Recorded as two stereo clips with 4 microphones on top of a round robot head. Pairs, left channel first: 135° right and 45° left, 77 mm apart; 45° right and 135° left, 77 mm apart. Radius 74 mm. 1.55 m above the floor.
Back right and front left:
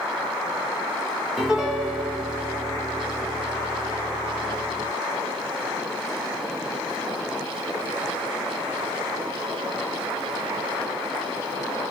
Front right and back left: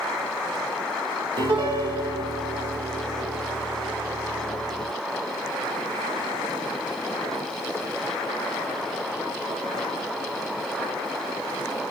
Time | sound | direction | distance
1.4 | a piano | 130° left | 1.1 m